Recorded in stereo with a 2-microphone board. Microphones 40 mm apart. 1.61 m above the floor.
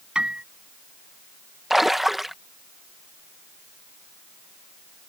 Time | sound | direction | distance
0.1 | a piano | 25° right (ahead or behind) | ?
1.7 | a splash | 5° right (ahead or behind) | ?